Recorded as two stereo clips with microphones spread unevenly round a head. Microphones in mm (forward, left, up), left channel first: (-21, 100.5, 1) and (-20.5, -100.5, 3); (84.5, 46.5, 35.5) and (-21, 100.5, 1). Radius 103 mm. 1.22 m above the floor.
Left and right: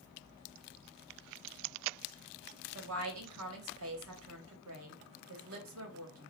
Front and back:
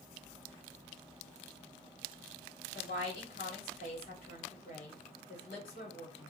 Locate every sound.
2.8 s a woman speaking: 65° right, 1.2 m